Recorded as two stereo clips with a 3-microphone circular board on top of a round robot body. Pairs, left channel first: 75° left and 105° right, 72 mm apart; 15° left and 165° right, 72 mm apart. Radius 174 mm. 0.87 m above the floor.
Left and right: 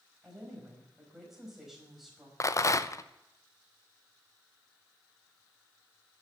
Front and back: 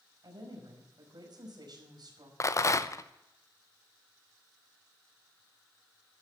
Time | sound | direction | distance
0.2 | a woman speaking | 170° left | 5.5 m
2.4 | a rattle | 45° left | 1.0 m